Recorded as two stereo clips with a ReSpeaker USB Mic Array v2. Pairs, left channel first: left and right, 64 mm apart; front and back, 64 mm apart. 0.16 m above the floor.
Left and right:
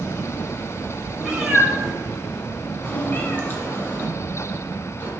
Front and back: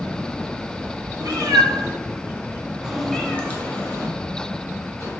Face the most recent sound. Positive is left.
turn(degrees=35)